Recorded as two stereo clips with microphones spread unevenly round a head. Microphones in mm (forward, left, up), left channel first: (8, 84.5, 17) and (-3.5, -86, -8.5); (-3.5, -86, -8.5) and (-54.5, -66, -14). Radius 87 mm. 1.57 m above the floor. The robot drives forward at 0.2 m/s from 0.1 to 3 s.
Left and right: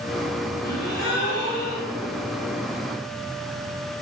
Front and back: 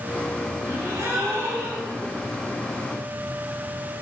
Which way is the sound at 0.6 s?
95° left.